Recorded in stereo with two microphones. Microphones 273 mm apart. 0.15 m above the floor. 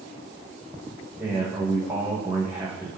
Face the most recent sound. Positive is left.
turn(degrees=-5)  # may be behind; listen again after turning